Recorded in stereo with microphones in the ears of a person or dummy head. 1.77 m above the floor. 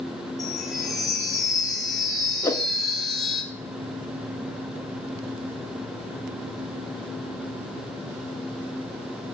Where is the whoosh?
20° left (ahead or behind), 0.8 m.